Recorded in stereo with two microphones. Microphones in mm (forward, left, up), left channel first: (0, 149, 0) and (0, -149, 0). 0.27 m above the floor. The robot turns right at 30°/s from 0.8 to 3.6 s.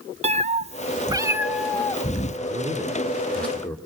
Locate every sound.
0.2 s a cat meowing: 25° right, 0.7 m; by 2.4 s 25° left, 0.7 m
2.5 s a man speaking: 25° right, 3 m; by 3.8 s 10° left, 3 m